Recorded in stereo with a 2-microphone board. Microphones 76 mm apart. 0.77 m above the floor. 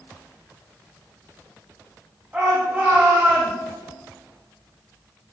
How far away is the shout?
About 5 m.